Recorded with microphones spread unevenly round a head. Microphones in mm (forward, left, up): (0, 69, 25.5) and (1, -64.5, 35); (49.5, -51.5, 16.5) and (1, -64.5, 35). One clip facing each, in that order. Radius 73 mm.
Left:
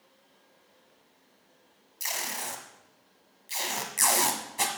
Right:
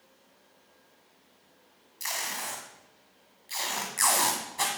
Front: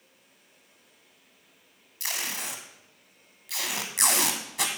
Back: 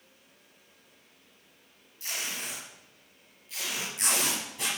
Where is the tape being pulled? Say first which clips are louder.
Even, front 2 dB; 20° left, 1.8 m.